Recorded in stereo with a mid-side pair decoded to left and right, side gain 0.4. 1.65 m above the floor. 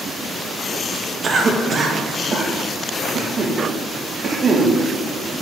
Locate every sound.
1.2 s a cough: 40° right, 2 m